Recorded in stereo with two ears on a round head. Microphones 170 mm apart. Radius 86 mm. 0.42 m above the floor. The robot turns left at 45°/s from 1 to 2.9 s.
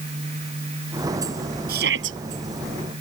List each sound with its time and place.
1.7 s a shout: 50° right (ahead or behind); by 2.2 s 70° right (ahead or behind)